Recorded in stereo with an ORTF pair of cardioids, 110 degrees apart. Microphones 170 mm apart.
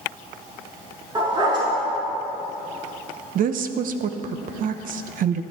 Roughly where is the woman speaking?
Ahead right.